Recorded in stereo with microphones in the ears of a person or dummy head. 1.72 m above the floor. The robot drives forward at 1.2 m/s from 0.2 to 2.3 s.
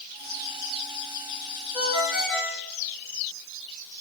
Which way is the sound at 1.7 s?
10° left (ahead or behind).